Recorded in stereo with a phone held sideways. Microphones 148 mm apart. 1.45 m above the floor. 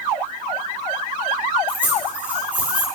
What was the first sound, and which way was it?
Keys jangling, 15° right (ahead or behind).